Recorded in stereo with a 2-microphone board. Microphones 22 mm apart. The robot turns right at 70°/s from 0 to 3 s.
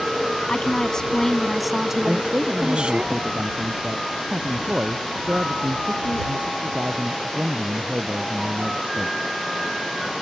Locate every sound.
0.5 s a woman speaking: 110° left; by 3.0 s 75° right
2.0 s a man speaking: 135° right; by 9.2 s 70° right